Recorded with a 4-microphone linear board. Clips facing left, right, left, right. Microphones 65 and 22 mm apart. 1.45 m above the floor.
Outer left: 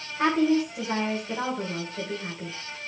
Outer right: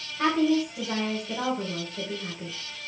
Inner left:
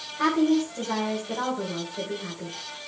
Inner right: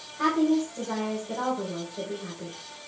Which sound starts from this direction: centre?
A woman speaking, at 0.2 s.